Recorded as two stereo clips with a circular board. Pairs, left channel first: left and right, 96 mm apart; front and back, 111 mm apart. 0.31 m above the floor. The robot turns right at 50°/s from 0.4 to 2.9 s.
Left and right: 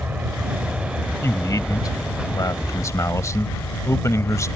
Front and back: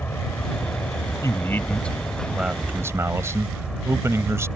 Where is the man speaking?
45° left; by 4.5 s 130° left.